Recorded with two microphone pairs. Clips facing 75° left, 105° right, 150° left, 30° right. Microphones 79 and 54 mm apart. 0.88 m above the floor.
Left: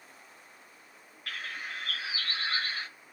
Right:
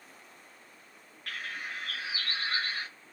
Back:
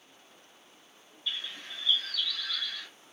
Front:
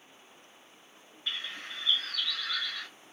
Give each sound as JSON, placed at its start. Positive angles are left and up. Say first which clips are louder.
{"t": 1.3, "sound": "a bird", "louder": "even, front 1 dB", "azimuth_deg": -20, "distance_m": 0.6}